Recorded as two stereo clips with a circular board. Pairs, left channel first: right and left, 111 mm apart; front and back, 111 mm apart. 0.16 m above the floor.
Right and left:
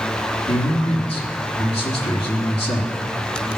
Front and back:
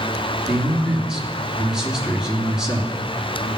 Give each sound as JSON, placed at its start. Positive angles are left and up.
{"t": 0.5, "sound": "a man speaking", "azimuth_deg": -95, "distance_m": 3.0}